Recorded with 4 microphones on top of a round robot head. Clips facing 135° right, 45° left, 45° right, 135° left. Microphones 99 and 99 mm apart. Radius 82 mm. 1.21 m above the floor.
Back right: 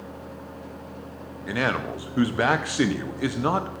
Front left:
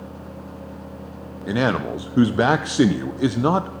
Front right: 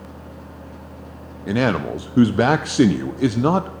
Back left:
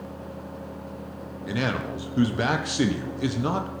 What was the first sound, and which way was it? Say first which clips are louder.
A man speaking: front left 5 dB, front right 8 dB; 20° right.